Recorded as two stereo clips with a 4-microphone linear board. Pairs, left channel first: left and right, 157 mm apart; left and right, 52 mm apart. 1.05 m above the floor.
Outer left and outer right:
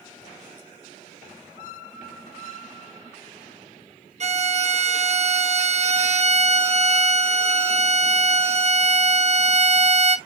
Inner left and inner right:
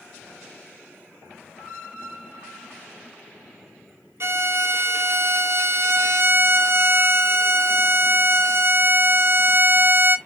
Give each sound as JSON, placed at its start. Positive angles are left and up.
{"t": 4.2, "sound": "a violin", "side_deg": -50, "distance_m": 0.5}